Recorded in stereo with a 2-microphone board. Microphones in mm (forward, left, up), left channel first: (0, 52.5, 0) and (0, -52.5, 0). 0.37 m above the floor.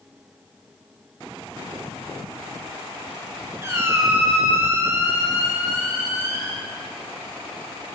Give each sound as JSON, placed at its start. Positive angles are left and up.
{"t": 3.6, "sound": "a squeak", "side_deg": -25, "distance_m": 1.4}